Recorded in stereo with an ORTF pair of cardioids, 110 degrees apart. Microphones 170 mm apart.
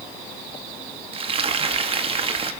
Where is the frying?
35° right, 1.7 m.